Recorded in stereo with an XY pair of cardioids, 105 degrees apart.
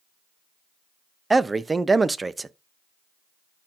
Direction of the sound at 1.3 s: 20° right.